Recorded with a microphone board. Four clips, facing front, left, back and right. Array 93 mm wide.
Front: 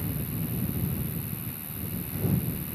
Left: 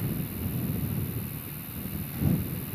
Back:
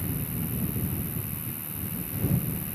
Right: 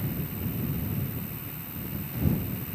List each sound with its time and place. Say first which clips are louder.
0.0 s an insect: even, even; 160° right